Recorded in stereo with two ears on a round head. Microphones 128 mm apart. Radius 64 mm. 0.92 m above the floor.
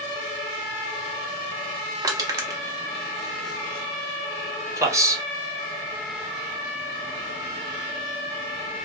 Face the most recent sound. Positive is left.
turn(degrees=-20)  # may be behind; listen again after turning